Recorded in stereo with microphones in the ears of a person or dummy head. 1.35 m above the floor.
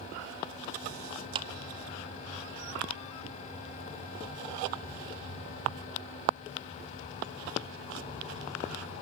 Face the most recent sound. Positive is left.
turn(degrees=-30)  # may be behind; listen again after turning